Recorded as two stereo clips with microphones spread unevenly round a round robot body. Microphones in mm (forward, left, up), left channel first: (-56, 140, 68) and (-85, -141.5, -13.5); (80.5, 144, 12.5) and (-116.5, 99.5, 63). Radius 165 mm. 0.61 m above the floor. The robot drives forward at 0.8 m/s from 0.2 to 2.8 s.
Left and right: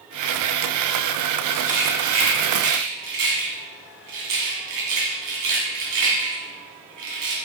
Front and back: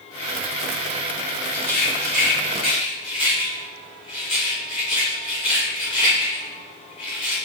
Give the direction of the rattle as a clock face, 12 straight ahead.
1 o'clock.